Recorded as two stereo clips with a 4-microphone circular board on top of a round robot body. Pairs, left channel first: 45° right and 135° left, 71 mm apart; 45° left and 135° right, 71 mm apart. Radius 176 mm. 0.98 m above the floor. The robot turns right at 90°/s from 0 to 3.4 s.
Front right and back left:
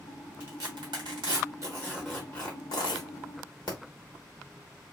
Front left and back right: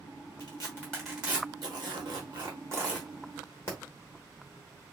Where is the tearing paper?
75° left, 1.2 m; by 3.8 s 15° right, 1.2 m.